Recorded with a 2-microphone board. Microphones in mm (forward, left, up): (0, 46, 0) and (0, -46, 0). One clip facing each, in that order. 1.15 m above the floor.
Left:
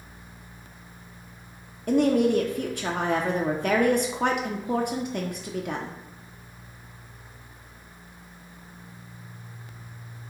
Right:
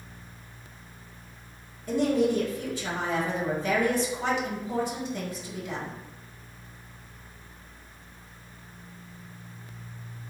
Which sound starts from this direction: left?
A woman speaking, at 1.9 s.